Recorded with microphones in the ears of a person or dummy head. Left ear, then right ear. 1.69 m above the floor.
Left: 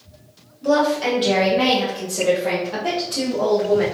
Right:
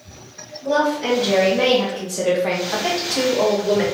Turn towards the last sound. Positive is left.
turn(degrees=-65)  # may be behind; listen again after turning